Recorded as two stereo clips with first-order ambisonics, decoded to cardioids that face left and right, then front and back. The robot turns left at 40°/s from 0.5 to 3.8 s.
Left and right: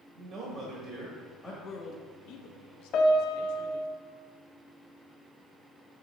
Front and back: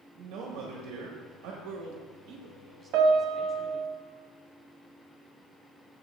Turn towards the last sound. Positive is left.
turn(degrees=110)